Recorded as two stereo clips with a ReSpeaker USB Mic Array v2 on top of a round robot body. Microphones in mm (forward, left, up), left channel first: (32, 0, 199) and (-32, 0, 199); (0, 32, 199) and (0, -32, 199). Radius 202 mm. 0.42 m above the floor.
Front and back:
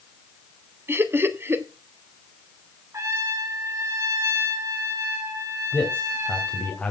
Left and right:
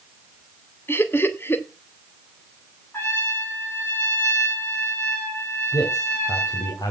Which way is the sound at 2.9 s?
140° left.